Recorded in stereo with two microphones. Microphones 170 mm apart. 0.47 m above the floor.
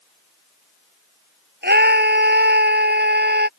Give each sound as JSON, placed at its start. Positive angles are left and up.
{"t": 1.6, "sound": "a scream", "side_deg": -85}